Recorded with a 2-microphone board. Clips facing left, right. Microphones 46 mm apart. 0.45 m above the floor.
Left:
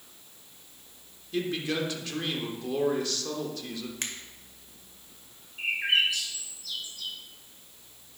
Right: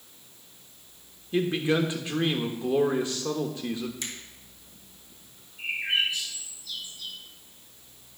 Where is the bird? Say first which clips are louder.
Left 2 dB; 70° left (ahead or behind), 2.5 m.